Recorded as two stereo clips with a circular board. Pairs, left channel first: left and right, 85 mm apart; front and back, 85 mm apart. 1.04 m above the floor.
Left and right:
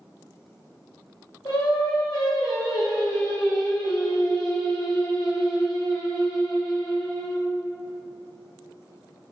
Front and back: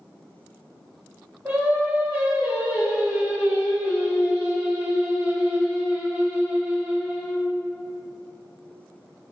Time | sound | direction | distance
1.4 | singing | 110° left | 1.5 m